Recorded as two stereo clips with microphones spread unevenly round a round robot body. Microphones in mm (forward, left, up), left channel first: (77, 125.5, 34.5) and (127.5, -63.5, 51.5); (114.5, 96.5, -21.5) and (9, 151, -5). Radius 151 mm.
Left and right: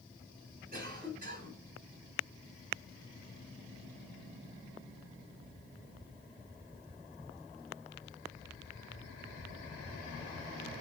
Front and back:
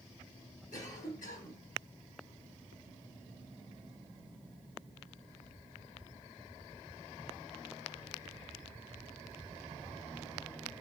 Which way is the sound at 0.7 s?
35° right.